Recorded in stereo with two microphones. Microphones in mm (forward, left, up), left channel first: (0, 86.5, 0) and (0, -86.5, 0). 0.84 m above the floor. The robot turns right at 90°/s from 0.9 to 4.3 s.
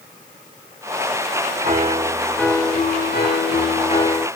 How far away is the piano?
About 2 m.